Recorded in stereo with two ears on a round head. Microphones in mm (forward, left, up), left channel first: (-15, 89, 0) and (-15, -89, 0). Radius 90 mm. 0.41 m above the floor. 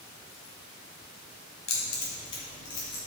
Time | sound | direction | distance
1.7 | keys jangling | 70° left (ahead or behind) | 2 m